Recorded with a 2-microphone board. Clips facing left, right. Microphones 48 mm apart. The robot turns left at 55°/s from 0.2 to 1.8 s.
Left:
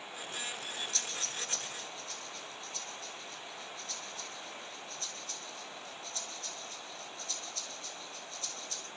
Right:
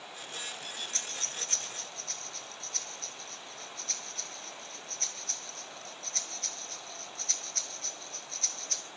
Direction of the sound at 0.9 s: 40° right (ahead or behind).